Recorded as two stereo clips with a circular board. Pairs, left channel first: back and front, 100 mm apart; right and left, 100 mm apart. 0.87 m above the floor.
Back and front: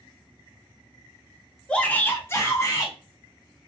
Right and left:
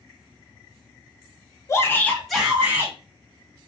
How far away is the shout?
About 0.6 m.